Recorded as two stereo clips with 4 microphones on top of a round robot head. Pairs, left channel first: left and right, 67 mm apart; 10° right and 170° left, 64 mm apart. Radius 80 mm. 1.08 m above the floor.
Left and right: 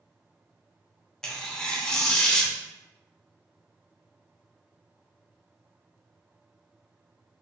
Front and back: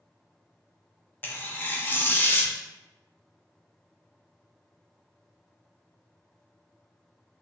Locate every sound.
1.2 s tearing paper: 15° left, 0.5 m